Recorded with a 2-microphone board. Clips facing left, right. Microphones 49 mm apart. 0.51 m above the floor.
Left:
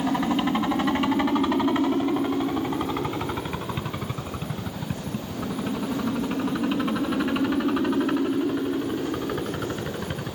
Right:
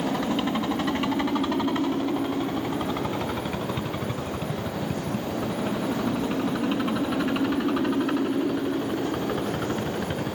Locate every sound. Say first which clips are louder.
0.0 s a helicopter: left 2 dB; 20° left (ahead or behind); by 10.3 s centre (ahead or behind)